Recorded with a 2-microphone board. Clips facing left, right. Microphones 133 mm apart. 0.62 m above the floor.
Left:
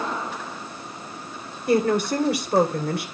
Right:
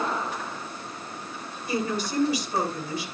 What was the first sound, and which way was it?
A woman speaking, 70° left (ahead or behind).